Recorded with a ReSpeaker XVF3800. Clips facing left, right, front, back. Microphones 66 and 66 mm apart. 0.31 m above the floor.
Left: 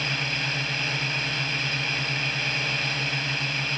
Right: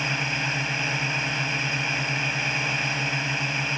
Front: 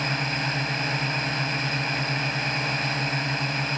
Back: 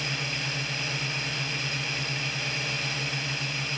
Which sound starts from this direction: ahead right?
A drone, at 0.0 s.